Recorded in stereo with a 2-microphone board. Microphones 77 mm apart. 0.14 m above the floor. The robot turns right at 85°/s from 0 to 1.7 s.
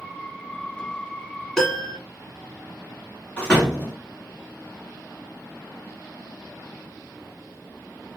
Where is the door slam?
15° left (ahead or behind), 1.5 m.